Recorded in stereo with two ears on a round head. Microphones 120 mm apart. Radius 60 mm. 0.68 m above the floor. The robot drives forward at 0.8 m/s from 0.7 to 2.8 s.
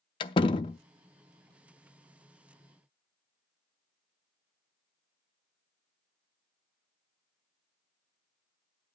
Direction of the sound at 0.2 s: 35° left (ahead or behind).